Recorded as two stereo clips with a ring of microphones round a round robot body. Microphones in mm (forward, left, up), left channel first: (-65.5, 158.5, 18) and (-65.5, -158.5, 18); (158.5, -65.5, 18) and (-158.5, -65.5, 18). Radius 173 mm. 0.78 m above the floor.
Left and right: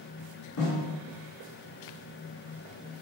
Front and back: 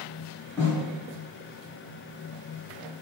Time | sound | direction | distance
0.6 | a snare drum | 75° left | 1.6 m